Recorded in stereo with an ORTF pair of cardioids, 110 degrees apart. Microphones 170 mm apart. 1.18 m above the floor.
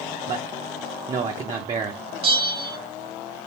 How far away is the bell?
About 0.7 m.